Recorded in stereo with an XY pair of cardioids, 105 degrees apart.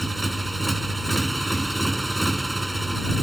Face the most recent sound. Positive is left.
turn(degrees=-10)